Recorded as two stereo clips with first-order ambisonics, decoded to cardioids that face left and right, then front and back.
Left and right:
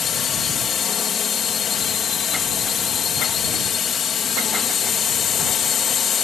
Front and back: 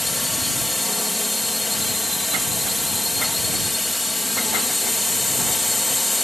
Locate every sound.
0.0 s a drone: 80° left